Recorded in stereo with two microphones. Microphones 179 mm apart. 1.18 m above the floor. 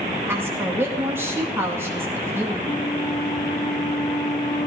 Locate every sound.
0.3 s a woman speaking: 15° right (ahead or behind), 2 m
2.6 s a flute: 20° left (ahead or behind), 1.7 m